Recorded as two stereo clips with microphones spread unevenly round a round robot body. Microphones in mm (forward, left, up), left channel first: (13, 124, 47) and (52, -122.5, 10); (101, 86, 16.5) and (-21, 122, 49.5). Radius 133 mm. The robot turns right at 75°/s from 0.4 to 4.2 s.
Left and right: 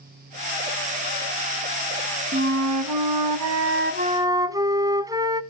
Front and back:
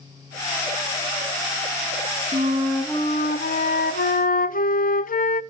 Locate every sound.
2.3 s a flute: 145° right, 0.5 m; by 5.4 s 5° right, 0.5 m